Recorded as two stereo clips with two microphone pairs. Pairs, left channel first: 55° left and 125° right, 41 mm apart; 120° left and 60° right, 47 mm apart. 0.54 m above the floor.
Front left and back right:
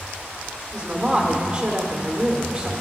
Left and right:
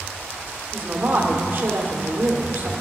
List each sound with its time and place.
0.7 s a woman speaking: 75° right, 1.6 m